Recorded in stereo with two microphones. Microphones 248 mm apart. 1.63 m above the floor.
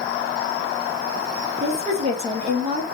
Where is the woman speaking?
25° right (ahead or behind), 1.7 m.